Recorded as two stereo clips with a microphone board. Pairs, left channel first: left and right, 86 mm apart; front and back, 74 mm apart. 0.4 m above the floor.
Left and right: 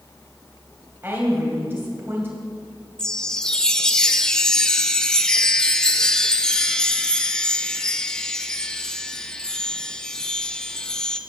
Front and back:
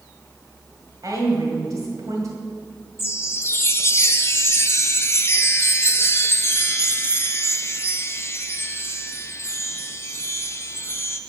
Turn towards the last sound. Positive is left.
turn(degrees=10)